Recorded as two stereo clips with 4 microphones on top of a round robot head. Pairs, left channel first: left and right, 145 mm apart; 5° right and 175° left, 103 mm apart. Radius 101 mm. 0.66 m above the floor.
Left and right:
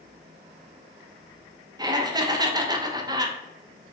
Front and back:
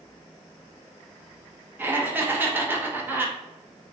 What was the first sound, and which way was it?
Laughter, 130° right.